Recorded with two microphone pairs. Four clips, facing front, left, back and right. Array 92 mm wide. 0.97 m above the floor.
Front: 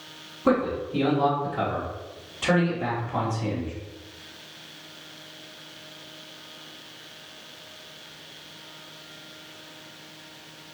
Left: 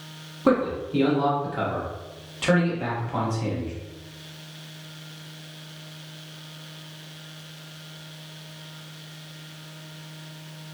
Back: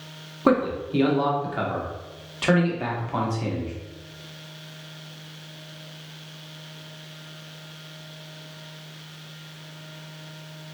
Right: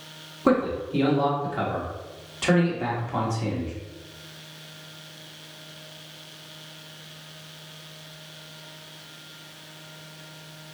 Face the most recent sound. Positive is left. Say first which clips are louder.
# even, back 2 dB
turn(degrees=-175)